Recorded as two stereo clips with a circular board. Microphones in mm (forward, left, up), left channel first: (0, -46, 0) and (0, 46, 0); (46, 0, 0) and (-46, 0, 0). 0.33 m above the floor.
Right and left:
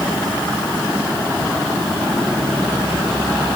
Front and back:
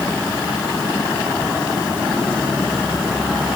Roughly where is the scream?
I don't hear a scream.